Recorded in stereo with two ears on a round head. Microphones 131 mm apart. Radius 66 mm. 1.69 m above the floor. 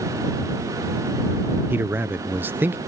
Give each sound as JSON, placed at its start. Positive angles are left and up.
{"t": 1.7, "sound": "a man speaking", "side_deg": -15}